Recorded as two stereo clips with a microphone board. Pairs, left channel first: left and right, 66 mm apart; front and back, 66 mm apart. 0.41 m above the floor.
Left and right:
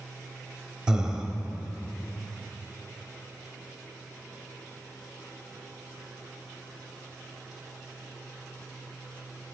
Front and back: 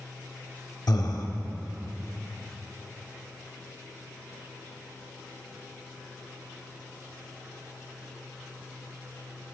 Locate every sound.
0.9 s breathing: 10° right, 0.8 m